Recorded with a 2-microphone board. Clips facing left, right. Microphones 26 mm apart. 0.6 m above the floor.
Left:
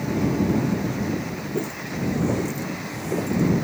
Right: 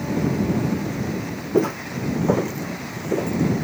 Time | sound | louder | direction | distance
1.5 | footsteps | right 9 dB | 50° right (ahead or behind) | ?